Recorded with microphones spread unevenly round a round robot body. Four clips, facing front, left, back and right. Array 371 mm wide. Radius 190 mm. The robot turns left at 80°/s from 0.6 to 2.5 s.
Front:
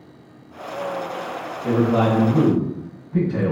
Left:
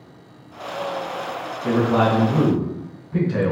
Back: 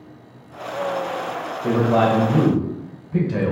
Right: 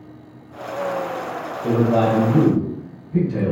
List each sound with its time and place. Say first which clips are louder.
1.6 s a man speaking: right 1 dB, back 1 dB; 130° right, 2.0 m; by 3.5 s 160° left, 2.0 m